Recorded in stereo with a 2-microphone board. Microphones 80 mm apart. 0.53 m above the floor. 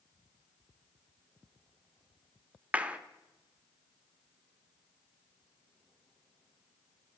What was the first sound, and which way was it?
A clap, 15° right (ahead or behind).